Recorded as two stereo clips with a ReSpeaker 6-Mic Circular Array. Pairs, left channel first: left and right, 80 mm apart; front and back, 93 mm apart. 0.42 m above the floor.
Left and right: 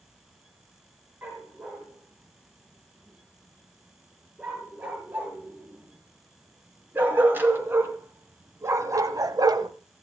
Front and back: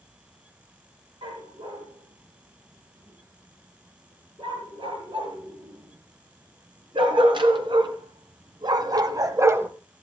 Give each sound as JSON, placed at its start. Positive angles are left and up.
{"t": 1.2, "sound": "a dog barking", "azimuth_deg": -165, "distance_m": 6.5}